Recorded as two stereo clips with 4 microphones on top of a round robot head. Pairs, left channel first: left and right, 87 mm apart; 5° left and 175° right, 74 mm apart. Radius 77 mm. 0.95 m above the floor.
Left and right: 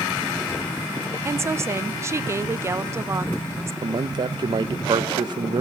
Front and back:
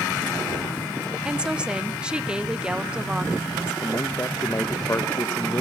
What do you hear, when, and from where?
1.2 s a woman speaking: 105° right, 0.9 m
3.8 s a man speaking: 55° right, 0.6 m